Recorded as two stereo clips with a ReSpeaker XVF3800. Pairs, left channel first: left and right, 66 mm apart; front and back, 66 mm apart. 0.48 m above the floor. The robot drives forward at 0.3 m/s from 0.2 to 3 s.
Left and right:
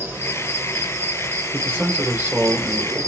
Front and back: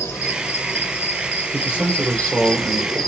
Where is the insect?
40° right, 1.2 m; by 3.1 s 90° right, 0.8 m.